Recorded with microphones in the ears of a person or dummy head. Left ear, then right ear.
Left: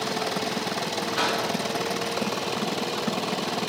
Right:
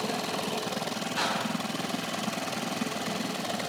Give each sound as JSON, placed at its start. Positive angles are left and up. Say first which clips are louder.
{"t": 1.1, "sound": "a whoosh", "louder": "left 4 dB", "side_deg": 5, "distance_m": 0.7}